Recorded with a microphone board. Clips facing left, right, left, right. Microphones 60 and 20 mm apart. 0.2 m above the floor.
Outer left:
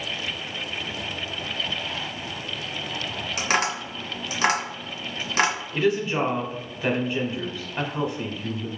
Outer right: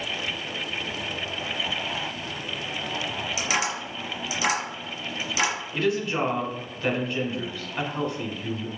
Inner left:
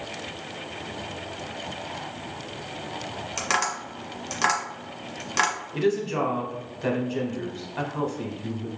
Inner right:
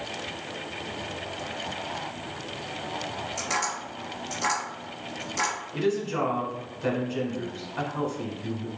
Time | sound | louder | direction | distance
3.4 | tapping | outer left 4 dB, inner left 4 dB | 50° left (ahead or behind) | 1.6 m
5.7 | a woman speaking | outer left 2 dB, inner left 2 dB | 10° left (ahead or behind) | 1.1 m